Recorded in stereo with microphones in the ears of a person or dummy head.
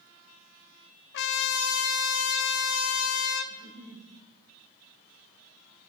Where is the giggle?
25° right (ahead or behind), 7.5 m.